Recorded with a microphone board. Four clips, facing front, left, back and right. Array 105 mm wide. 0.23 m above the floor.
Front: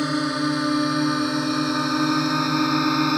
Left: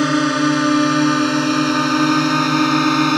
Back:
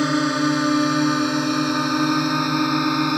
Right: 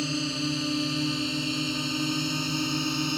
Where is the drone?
100° left; by 3.2 s 85° left.